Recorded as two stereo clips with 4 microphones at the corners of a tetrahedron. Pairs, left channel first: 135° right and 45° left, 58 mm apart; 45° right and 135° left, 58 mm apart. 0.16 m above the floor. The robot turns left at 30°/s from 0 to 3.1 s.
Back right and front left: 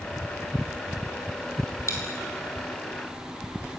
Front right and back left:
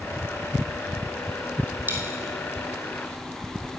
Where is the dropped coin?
165° right, 2.0 m; by 2.1 s 175° right, 2.0 m.